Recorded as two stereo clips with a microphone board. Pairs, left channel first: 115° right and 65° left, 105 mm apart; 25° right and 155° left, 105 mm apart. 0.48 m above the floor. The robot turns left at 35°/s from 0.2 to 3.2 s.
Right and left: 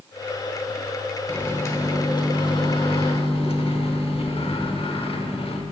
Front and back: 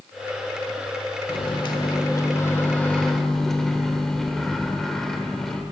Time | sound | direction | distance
1.3 | a microwave | 40° right | 1.0 m